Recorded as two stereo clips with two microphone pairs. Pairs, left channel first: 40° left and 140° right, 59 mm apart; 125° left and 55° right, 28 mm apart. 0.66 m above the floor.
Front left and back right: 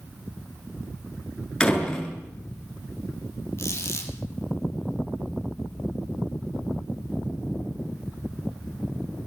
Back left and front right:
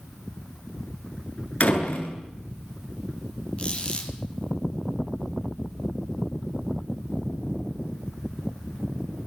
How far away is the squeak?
About 5.5 m.